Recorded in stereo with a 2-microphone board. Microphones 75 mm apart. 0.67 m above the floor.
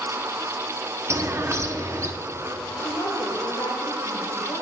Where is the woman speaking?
75° left (ahead or behind), 2 m.